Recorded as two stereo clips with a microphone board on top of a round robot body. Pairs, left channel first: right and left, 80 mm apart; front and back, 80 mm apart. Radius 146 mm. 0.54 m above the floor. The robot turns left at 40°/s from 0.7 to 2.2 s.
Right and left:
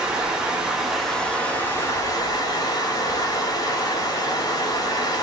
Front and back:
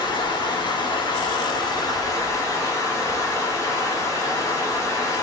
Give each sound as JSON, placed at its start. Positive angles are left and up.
{"t": 0.0, "sound": "running water", "azimuth_deg": 15, "distance_m": 1.7}